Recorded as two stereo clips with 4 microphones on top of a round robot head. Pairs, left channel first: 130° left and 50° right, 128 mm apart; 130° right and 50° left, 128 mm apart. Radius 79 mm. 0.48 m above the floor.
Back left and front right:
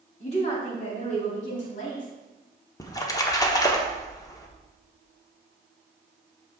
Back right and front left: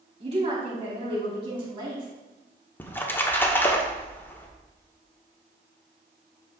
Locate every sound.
0.2 s a woman speaking: 90° left, 4 m; by 2.1 s 105° left, 4 m
2.8 s a splash: 170° left, 1.2 m